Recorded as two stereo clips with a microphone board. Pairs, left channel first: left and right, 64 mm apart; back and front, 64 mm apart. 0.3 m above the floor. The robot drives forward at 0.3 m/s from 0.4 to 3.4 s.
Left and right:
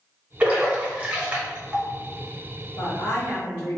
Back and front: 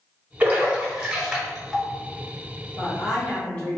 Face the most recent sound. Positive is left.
turn(degrees=125)